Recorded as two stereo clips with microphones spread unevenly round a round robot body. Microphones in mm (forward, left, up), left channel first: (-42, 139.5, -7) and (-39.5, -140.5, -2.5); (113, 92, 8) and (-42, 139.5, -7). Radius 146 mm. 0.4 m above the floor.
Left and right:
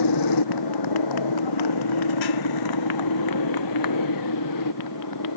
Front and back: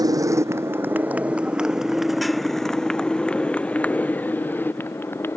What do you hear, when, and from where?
0.0 s a motorcycle: 95° left; by 5.4 s 60° left